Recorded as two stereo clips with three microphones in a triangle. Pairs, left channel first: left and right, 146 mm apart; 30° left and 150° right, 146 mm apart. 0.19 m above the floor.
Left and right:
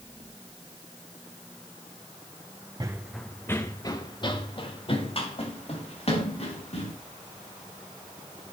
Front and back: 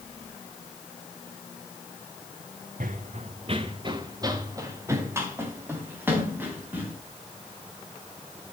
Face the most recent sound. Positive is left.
turn(degrees=130)